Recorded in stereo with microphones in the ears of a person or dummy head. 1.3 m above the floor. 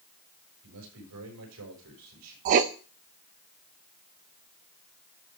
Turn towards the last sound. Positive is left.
turn(degrees=-35)  # may be behind; listen again after turning